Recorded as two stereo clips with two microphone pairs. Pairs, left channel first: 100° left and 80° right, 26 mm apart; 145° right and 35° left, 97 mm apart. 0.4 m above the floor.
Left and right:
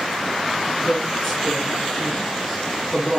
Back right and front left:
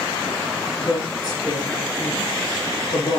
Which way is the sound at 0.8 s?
170° left.